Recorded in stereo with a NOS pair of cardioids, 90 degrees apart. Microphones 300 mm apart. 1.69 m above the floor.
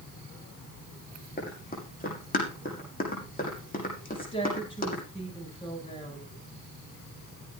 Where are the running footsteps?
30° left, 6.5 m.